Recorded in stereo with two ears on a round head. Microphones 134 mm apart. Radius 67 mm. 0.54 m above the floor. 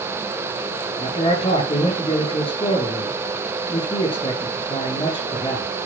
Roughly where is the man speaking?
Left.